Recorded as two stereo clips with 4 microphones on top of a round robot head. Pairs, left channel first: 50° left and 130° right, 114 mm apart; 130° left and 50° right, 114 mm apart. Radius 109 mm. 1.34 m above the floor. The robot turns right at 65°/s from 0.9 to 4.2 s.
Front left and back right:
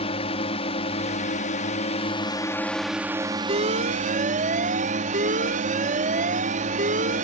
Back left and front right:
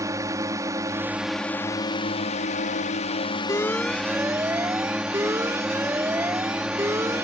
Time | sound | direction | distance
0.0 | a drone | 15° left | ?
3.5 | an alarm | 160° right | ?